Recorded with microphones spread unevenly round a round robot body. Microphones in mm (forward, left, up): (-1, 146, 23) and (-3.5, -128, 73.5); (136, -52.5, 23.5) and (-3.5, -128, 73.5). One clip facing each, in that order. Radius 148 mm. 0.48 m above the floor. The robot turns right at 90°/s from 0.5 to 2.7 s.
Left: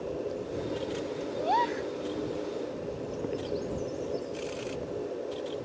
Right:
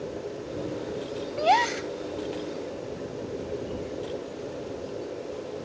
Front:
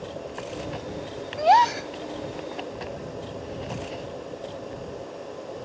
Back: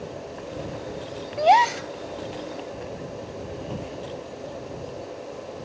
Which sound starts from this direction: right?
A gasp, at 1.4 s.